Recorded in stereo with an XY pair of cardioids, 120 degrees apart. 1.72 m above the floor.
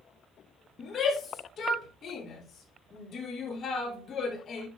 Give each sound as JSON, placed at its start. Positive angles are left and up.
{"t": 0.8, "sound": "a shout", "azimuth_deg": 40, "distance_m": 6.0}